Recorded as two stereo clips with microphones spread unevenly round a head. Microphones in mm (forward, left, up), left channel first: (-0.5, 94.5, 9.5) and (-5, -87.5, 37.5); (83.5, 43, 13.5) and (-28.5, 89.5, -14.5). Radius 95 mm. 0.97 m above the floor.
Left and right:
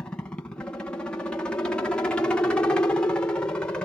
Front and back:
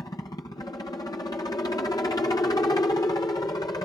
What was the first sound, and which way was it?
A helicopter, 25° left.